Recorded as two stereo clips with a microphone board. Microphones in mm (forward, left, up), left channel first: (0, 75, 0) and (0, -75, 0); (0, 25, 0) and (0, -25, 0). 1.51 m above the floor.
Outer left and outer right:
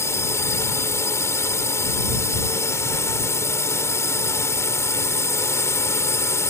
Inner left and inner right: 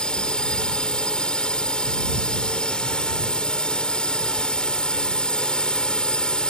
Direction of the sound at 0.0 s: 20° left (ahead or behind).